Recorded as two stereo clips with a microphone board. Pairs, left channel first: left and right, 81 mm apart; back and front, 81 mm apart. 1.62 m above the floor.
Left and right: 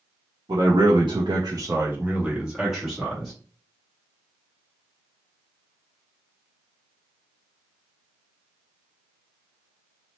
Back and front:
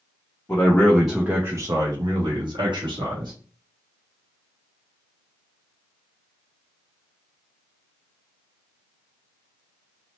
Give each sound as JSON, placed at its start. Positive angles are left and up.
{"t": 0.5, "sound": "a man speaking", "azimuth_deg": -120, "distance_m": 0.7}